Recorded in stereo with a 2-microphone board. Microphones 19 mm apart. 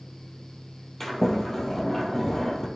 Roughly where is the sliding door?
Centre.